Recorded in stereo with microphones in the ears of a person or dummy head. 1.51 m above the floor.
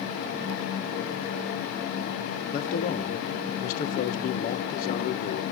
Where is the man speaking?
50° left (ahead or behind), 1.3 m.